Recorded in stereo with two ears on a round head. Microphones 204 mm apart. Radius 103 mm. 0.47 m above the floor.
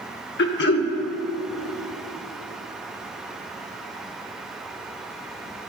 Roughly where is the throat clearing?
Left.